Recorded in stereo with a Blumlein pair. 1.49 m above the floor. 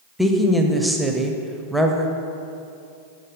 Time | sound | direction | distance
0.2 | a woman speaking | straight ahead | 0.5 m